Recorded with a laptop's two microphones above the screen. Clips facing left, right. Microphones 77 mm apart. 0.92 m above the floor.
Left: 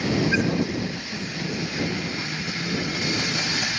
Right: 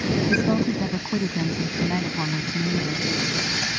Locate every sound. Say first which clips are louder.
0.3 s a woman speaking: right 2 dB; 60° right (ahead or behind)